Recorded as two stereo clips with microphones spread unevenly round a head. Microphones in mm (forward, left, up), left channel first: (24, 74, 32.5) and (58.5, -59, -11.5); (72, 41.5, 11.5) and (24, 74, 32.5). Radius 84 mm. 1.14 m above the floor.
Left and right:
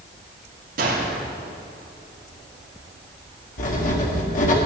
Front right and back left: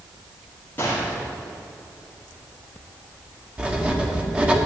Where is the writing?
80° left, 1.8 m.